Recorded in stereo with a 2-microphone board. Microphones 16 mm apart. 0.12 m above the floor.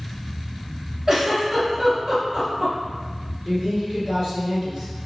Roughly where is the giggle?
Right.